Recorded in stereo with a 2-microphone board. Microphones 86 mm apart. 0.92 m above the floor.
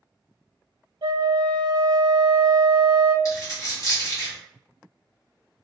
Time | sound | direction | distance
1.0 | a flute | 65° right (ahead or behind) | 0.6 m
3.2 | a dropped coin | 40° left (ahead or behind) | 2.0 m